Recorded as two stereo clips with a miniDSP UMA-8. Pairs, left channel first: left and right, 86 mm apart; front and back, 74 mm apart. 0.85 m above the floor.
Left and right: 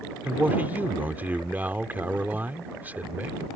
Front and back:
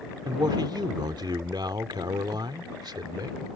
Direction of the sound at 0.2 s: 160° right.